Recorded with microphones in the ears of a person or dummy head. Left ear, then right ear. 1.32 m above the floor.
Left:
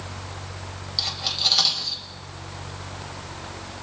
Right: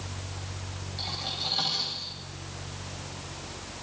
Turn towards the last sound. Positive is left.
turn(degrees=70)  # may be behind; listen again after turning